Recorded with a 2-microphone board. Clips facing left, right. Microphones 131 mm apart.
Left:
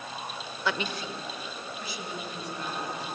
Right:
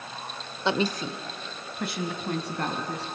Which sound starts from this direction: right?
A woman speaking, at 0.7 s.